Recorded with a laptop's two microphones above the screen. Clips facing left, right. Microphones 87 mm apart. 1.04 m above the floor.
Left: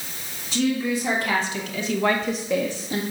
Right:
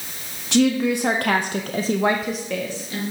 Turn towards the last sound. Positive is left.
turn(degrees=30)  # may be behind; listen again after turning